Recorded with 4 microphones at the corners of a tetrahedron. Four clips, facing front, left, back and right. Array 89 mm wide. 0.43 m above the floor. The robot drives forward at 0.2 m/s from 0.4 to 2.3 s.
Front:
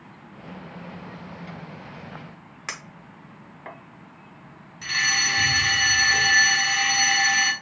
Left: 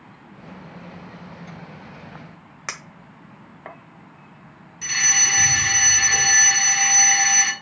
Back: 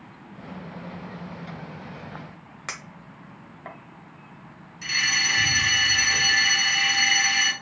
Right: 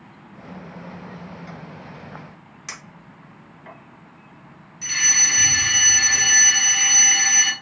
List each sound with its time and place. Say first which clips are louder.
2.7 s a clink: left 4 dB, front 1 dB; 105° left, 1.1 m
4.8 s a fire alarm: left 1 dB, front 1 dB; 65° left, 2 m